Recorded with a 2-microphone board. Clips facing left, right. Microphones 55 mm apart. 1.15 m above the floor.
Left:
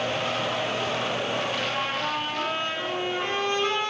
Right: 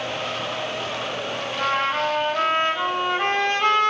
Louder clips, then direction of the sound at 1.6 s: Right 6 dB; 60° right (ahead or behind).